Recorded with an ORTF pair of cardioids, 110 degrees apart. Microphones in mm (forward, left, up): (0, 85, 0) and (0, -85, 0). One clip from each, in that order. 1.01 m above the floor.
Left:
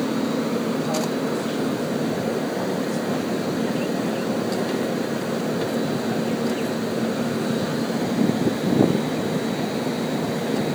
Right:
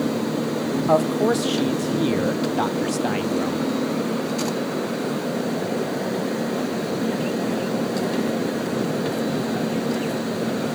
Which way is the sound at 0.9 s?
65° right.